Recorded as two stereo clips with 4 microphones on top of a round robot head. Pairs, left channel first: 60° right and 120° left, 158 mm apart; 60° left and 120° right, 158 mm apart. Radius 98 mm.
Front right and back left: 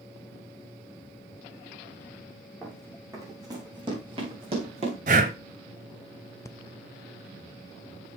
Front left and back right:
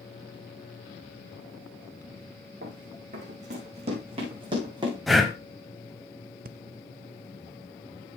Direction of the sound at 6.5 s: 130° right.